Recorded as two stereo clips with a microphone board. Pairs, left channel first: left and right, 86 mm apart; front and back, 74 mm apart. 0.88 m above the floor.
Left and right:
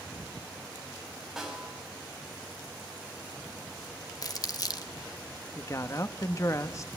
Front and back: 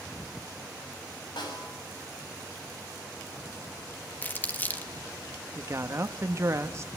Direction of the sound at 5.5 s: 135° left.